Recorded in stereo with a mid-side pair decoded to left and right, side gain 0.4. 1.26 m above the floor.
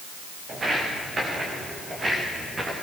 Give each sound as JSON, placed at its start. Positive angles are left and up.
{"t": 0.5, "sound": "footsteps", "azimuth_deg": -40, "distance_m": 9.5}